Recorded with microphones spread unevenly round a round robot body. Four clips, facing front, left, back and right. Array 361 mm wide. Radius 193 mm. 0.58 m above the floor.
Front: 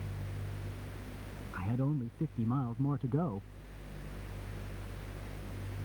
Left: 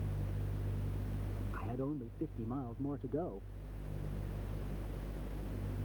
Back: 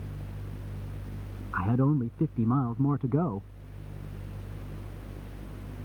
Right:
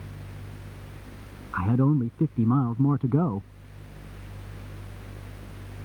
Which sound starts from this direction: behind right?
A man speaking, at 1.5 s.